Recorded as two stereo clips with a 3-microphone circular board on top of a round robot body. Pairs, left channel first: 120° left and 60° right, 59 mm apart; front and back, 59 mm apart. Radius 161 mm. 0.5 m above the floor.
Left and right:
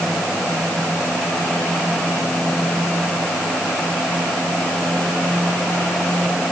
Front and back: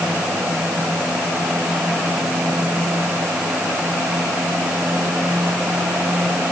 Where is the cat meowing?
No cat meowing in this recording.